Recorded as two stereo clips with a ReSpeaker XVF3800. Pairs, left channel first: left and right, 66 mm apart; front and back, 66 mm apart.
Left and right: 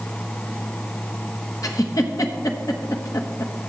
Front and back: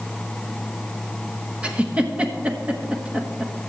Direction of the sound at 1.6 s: 110° left.